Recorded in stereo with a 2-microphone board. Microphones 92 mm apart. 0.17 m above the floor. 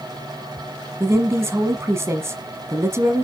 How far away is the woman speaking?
About 1.3 m.